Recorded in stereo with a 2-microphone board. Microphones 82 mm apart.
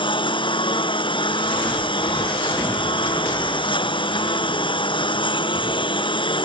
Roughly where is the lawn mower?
Left.